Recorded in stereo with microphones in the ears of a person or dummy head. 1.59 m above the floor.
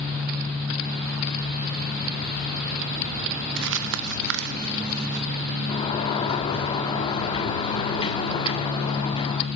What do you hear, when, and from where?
3.6 s crumpling: 65° right (ahead or behind), 1.1 m
5.7 s a sliding door: 30° left (ahead or behind), 1.5 m